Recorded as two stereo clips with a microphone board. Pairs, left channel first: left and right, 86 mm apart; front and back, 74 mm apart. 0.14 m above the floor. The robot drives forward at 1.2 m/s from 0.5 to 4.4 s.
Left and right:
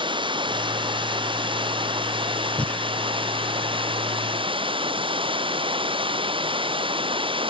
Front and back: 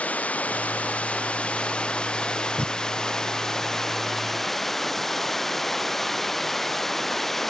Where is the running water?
70° right; by 7.5 s 85° right.